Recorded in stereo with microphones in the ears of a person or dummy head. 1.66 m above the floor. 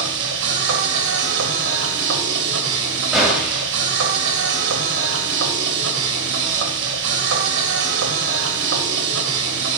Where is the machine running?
70° right (ahead or behind), 2 m.